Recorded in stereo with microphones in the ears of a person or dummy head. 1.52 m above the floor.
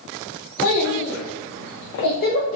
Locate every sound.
0.6 s a child speaking: 55° left (ahead or behind), 1.0 m; by 2.6 s 35° left (ahead or behind), 0.7 m